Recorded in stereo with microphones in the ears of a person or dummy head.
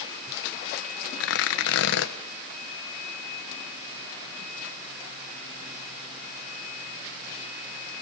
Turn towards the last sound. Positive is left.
turn(degrees=80)